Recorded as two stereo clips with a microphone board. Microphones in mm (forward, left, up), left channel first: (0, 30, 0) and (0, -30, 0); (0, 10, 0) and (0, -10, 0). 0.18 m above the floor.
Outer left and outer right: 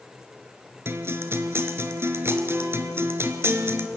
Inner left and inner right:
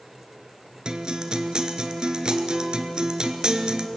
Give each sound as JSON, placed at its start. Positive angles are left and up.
{"t": 0.8, "sound": "a guitar", "side_deg": -45, "distance_m": 1.6}